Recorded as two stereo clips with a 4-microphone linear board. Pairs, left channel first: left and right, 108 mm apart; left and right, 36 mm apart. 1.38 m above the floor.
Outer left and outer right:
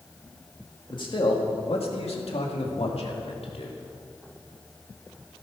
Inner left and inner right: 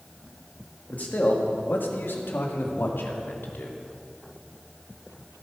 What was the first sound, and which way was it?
A man speaking, 50° left (ahead or behind).